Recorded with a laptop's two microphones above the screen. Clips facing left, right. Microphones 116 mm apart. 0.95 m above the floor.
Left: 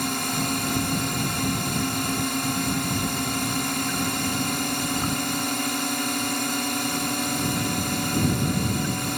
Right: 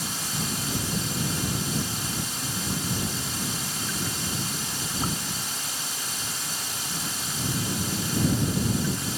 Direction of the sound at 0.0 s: 60° left (ahead or behind).